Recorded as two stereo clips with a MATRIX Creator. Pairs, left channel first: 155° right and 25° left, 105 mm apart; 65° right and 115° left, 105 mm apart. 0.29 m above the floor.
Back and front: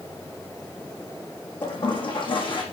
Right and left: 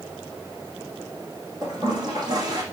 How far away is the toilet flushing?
About 6 m.